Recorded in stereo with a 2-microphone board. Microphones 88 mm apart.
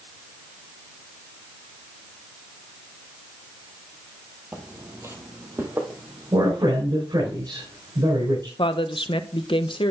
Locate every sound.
4.5 s footsteps: 25° right (ahead or behind), 1.5 m; by 7.3 s 35° right (ahead or behind), 3 m
6.3 s a man speaking: 55° right (ahead or behind), 5 m
8.6 s a woman speaking: 75° left (ahead or behind), 0.8 m